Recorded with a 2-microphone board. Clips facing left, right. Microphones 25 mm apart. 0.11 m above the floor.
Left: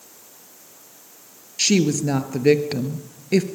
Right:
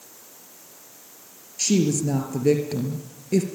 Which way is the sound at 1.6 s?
35° left (ahead or behind).